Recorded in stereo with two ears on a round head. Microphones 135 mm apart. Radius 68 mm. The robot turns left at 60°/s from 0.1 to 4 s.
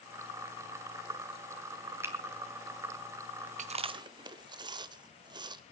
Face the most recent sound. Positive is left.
turn(degrees=-30)  # may be behind; listen again after turning